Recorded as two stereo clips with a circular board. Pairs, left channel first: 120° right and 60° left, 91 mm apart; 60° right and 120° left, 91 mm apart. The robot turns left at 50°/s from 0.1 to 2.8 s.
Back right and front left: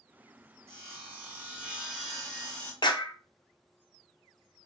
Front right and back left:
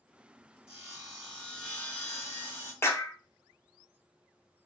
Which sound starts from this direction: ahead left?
Sawing, at 0.7 s.